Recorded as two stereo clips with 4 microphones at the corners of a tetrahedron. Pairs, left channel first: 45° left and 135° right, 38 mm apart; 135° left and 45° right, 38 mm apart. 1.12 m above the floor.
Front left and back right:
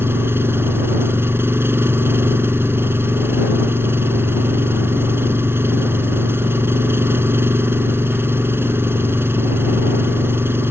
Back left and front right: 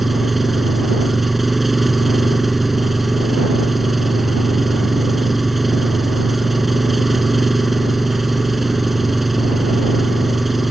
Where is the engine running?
135° right.